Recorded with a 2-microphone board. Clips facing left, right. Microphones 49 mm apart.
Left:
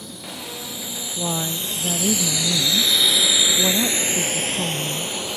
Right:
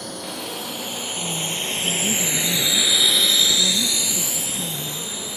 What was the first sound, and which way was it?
A drone, 60° right (ahead or behind).